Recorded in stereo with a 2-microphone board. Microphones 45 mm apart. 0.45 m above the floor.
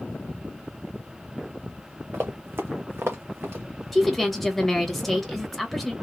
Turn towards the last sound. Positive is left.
turn(degrees=0)  # may be behind; listen again after turning